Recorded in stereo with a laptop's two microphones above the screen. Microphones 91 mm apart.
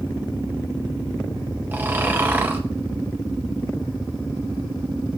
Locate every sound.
1.7 s snoring: 20° right (ahead or behind), 5.5 m